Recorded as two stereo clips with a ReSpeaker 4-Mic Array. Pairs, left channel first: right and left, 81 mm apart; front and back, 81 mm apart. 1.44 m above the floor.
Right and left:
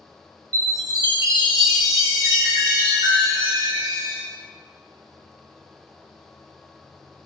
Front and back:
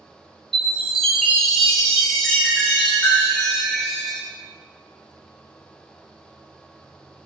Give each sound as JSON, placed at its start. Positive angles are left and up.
{"t": 0.5, "sound": "a chime", "azimuth_deg": 85, "distance_m": 1.2}